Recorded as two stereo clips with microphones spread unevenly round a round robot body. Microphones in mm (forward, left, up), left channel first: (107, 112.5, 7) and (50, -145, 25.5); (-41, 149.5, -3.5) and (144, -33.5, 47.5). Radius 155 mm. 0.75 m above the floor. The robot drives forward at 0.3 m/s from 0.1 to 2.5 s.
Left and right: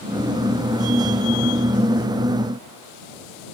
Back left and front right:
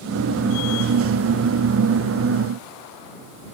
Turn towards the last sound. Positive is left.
No sound to turn to.